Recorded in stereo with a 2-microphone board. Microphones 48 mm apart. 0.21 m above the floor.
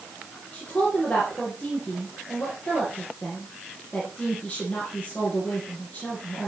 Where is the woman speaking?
30° left (ahead or behind), 7.5 m.